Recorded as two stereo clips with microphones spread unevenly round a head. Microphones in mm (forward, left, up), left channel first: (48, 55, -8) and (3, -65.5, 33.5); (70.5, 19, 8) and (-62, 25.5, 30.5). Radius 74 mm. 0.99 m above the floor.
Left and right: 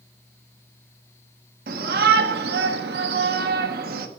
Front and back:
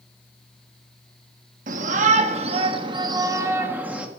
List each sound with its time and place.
1.7 s a shout: 145° right, 2 m; by 4.1 s 95° right, 1.8 m